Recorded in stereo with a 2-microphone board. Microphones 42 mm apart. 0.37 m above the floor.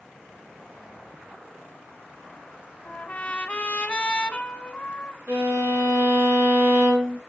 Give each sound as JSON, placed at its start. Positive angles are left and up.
{"t": 2.9, "sound": "a trumpet", "side_deg": 25, "distance_m": 1.3}
{"t": 5.3, "sound": "a violin", "side_deg": -60, "distance_m": 4.0}